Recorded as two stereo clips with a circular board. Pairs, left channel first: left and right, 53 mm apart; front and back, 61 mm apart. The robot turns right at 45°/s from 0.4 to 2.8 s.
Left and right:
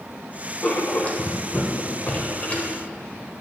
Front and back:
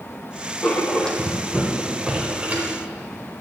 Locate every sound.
0.6 s writing: 50° left, 1.1 m; by 2.7 s 145° left, 1.1 m